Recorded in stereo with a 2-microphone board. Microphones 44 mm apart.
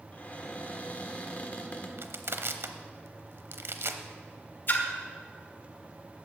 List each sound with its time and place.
0.1 s a cupboard door: 35° left (ahead or behind), 1.4 m
2.0 s crushing: 65° right (ahead or behind), 0.8 m
4.7 s a splash: 45° left (ahead or behind), 1.5 m